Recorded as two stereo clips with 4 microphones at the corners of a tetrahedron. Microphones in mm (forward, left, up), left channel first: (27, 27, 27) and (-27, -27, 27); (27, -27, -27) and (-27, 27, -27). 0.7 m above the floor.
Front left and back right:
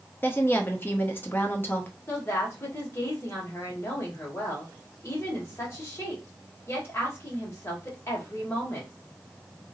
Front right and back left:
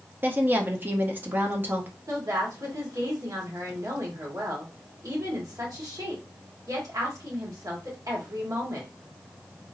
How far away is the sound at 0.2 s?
About 0.6 m.